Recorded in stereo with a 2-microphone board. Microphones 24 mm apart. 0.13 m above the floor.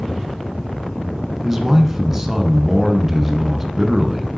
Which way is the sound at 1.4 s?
20° right (ahead or behind).